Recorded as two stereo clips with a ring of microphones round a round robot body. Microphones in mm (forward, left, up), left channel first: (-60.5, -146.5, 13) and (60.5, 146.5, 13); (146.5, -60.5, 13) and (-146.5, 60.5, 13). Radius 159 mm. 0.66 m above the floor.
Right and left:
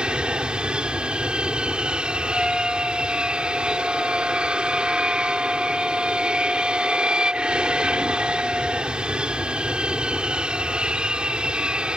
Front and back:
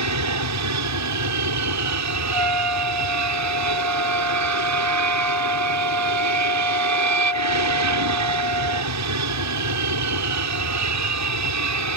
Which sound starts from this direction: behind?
A trumpet, at 2.3 s.